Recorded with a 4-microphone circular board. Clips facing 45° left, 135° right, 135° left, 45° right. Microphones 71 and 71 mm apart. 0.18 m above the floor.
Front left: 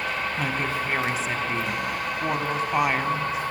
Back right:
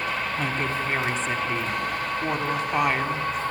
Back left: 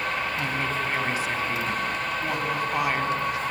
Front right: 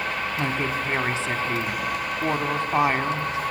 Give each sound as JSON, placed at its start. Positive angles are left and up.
{"t": 0.4, "sound": "a woman speaking", "azimuth_deg": -35, "distance_m": 1.3}